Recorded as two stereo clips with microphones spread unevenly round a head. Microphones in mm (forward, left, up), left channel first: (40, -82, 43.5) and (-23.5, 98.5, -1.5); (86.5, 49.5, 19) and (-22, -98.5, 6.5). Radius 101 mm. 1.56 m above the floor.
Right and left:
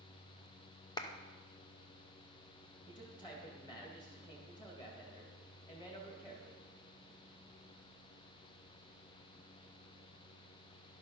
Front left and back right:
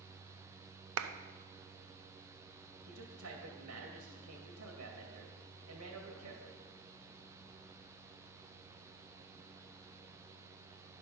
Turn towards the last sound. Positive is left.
turn(degrees=-140)